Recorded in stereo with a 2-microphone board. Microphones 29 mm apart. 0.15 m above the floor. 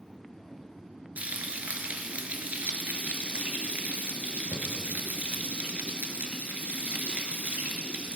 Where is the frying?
60° right (ahead or behind), 1.3 m.